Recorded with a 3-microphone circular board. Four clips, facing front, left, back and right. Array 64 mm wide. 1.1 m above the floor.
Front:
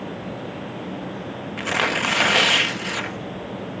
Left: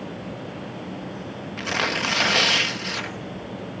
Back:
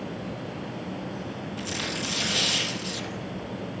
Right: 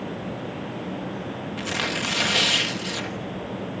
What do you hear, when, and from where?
1.6 s tearing paper: 20° left, 1.2 m